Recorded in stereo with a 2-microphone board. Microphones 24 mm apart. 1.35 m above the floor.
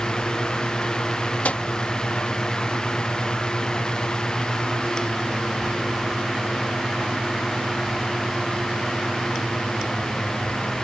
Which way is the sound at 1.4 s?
70° left (ahead or behind).